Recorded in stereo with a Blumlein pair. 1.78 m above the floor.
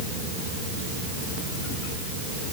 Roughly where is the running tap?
No running tap in this recording.